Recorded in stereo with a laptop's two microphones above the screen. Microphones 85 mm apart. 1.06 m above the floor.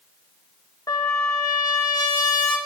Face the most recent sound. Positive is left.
turn(degrees=45)  # may be behind; listen again after turning